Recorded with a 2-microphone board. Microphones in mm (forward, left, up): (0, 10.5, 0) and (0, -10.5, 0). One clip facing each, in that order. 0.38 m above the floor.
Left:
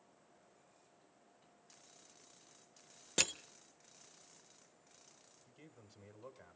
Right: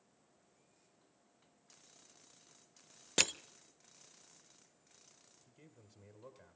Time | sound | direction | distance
3.2 | crushing | 15° right (ahead or behind) | 0.5 m
5.5 | a man speaking | 5° left (ahead or behind) | 1.6 m